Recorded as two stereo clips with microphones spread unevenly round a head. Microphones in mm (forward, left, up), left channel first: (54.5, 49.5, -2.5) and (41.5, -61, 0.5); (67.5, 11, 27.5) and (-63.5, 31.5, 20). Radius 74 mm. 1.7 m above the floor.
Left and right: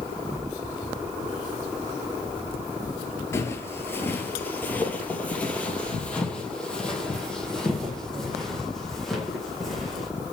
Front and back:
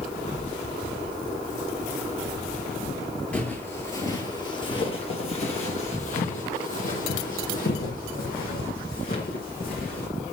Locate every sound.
3.3 s footsteps: 55° left, 1.8 m; by 10.1 s 5° right, 5 m